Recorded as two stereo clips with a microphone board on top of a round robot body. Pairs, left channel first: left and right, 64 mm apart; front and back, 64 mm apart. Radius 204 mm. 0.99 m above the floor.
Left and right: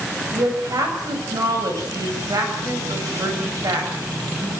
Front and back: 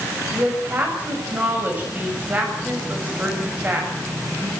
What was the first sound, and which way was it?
A woman speaking, 115° right.